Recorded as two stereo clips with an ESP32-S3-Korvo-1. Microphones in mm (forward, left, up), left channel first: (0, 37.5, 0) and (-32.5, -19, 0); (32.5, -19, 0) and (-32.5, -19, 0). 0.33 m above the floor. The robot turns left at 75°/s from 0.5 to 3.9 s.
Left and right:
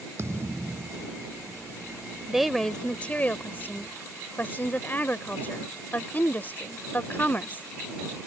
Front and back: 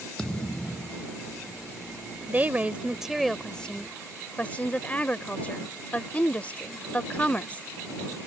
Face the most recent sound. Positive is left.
turn(degrees=45)